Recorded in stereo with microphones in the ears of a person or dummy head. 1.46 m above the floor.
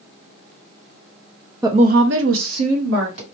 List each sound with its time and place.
1.6 s a woman speaking: 15° right (ahead or behind), 0.6 m; by 3.2 s 80° right, 1.9 m